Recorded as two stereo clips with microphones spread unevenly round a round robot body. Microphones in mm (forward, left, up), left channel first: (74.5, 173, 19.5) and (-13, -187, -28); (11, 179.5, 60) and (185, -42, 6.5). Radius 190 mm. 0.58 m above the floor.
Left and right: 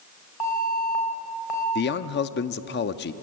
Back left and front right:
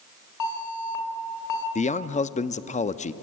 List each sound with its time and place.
0.4 s an alarm: 110° left, 4 m
1.8 s a man speaking: 80° left, 0.5 m